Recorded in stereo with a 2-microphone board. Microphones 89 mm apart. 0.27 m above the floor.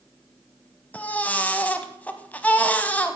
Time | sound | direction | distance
0.9 | a baby crying | 15° left (ahead or behind) | 0.8 m